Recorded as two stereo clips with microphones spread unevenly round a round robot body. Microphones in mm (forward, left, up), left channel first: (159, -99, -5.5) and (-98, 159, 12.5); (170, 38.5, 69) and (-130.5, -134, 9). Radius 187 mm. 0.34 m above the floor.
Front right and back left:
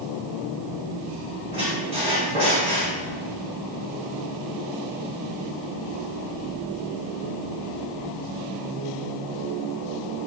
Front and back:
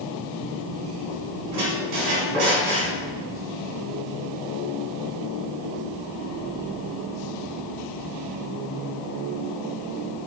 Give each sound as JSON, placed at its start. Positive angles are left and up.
{"t": 1.5, "sound": "a squeak", "azimuth_deg": -150, "distance_m": 1.1}